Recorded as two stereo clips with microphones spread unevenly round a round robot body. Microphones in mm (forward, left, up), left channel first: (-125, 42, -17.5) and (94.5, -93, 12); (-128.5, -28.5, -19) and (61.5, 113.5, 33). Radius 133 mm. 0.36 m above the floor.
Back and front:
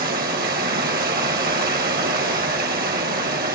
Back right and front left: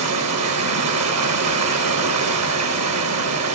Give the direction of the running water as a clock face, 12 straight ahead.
11 o'clock.